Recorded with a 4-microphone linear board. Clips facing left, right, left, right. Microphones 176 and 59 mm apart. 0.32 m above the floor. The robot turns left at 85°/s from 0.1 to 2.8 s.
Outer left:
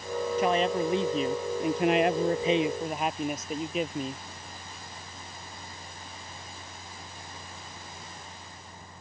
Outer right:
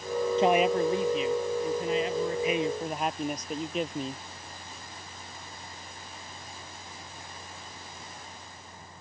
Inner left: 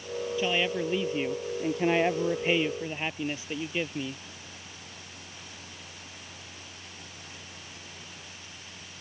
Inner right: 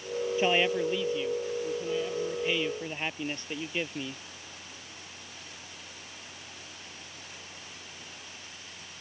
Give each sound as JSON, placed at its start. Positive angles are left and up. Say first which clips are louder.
{"t": 0.4, "sound": "a man speaking", "louder": "outer right 3 dB, inner right 2 dB", "azimuth_deg": -150}